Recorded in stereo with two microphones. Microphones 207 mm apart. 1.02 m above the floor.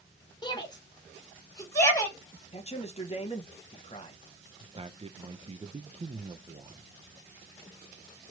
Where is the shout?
20° left (ahead or behind), 0.8 m; by 2.2 s 15° left (ahead or behind), 1.5 m.